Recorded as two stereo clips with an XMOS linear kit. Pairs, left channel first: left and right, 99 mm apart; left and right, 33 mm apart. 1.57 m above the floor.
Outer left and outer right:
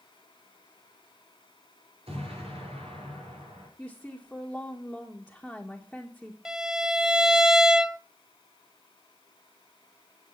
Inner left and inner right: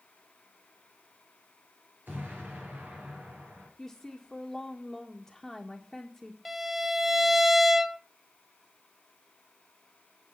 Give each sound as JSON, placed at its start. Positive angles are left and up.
{"t": 2.1, "sound": "an explosion", "side_deg": -80, "distance_m": 6.0}
{"t": 3.8, "sound": "a woman speaking", "side_deg": 5, "distance_m": 1.7}
{"t": 6.5, "sound": "a violin", "side_deg": -5, "distance_m": 0.6}